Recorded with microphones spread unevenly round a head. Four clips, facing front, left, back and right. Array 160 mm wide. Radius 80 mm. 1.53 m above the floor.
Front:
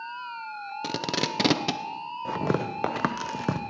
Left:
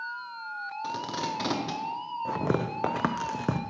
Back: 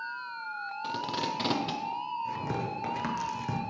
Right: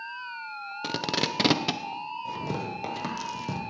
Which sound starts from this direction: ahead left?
Tearing paper, at 2.2 s.